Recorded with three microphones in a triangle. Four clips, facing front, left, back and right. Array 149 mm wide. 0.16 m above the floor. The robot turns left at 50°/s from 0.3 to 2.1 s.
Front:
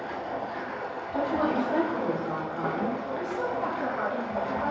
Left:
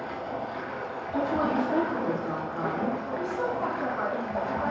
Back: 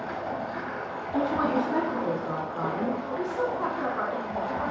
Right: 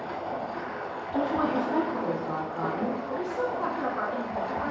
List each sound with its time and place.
0.0 s running water: straight behind, 1.1 m; by 4.7 s 90° left, 1.1 m
1.1 s a woman speaking: 150° right, 1.5 m; by 3.0 s 160° left, 1.5 m
3.0 s a woman speaking: 155° right, 1.3 m